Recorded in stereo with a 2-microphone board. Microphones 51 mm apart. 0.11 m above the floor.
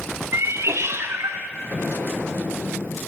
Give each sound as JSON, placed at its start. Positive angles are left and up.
{"t": 0.3, "sound": "a cat meowing", "side_deg": -65, "distance_m": 0.5}
{"t": 1.7, "sound": "an explosion", "side_deg": 45, "distance_m": 1.4}